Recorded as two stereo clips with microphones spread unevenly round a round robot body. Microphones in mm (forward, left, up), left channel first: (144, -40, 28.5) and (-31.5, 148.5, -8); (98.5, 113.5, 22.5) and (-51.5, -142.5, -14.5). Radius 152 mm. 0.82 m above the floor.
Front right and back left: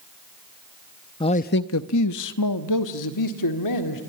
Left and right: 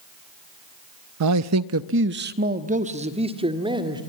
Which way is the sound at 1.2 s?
125° right.